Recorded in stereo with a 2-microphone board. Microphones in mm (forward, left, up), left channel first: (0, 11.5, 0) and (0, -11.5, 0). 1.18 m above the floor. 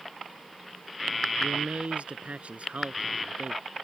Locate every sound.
1.4 s a man speaking: 70° right (ahead or behind); by 3.6 s 65° right (ahead or behind)